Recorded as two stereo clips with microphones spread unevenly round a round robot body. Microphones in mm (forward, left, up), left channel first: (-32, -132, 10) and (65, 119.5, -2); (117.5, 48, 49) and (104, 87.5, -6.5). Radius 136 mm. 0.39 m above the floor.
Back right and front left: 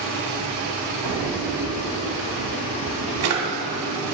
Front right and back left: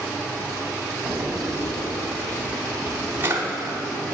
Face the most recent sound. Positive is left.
turn(degrees=105)